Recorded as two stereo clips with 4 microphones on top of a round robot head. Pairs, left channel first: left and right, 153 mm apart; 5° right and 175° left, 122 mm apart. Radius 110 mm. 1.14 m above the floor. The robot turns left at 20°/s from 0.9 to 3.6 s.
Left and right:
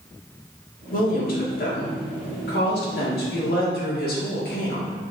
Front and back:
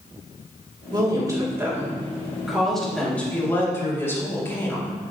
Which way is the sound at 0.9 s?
120° left.